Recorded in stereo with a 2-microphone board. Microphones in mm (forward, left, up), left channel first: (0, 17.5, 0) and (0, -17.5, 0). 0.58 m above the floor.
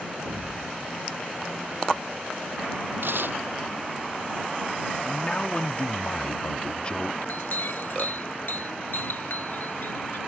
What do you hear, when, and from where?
0.2 s an explosion: 60° right (ahead or behind)
3.0 s tearing paper: 70° right (ahead or behind)
5.0 s a man speaking: 30° left (ahead or behind)
7.2 s a clink: 60° left (ahead or behind)